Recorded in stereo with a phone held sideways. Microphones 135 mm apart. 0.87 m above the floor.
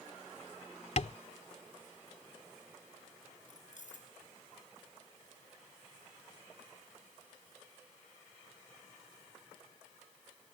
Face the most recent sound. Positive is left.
turn(degrees=65)  # may be behind; listen again after turning